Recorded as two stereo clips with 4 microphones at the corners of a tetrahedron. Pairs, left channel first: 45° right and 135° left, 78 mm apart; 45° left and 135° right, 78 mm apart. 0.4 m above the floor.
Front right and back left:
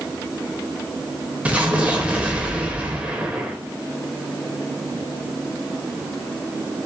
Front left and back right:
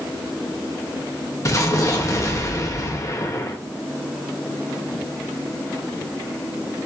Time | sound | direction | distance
1.4 | an explosion | 70° left | 1.0 m